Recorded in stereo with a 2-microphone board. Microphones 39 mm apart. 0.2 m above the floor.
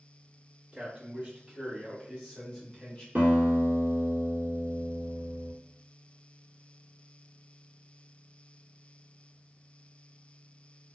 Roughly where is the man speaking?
Right.